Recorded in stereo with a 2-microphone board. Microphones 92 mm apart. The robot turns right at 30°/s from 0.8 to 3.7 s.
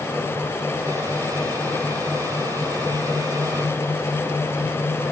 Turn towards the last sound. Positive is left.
No sound to turn to.